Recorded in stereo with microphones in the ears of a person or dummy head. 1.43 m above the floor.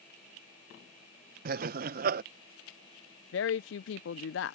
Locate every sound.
1.4 s laughter: 55° right (ahead or behind)
3.3 s a woman speaking: 65° left (ahead or behind)